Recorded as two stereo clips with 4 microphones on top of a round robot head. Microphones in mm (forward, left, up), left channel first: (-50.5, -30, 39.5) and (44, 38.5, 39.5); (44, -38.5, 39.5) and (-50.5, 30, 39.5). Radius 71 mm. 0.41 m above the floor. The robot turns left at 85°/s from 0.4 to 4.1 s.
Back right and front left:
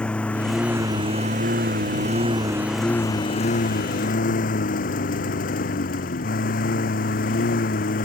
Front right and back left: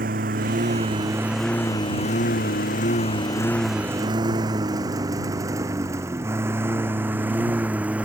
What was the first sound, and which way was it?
A lawn mower, 135° left.